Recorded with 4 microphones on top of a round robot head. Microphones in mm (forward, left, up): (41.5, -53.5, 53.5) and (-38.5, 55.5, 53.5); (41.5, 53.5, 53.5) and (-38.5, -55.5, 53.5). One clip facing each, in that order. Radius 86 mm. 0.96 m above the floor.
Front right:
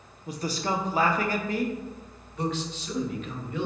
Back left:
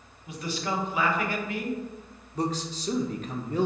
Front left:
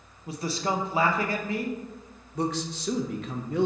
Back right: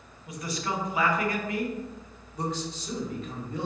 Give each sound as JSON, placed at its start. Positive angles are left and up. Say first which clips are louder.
{"t": 0.3, "sound": "a man speaking", "louder": "front right 2 dB, front left 4 dB", "azimuth_deg": -5, "distance_m": 0.7}
{"t": 2.4, "sound": "a man speaking", "louder": "back left 1 dB, front left 3 dB", "azimuth_deg": 75, "distance_m": 0.7}